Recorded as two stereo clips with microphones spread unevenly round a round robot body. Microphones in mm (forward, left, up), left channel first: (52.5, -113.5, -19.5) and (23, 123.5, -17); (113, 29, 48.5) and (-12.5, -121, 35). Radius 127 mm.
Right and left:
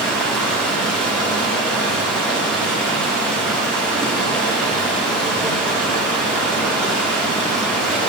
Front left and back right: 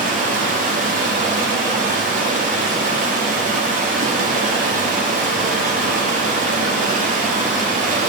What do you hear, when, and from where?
0.0 s running water: 170° right, 0.9 m